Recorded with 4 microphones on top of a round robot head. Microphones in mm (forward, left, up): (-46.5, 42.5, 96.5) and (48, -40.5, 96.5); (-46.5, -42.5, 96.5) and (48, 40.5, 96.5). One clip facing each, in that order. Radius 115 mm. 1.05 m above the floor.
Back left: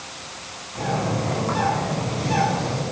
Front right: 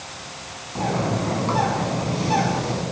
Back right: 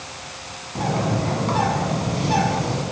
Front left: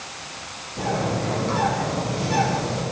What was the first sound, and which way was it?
A bird, 100° right.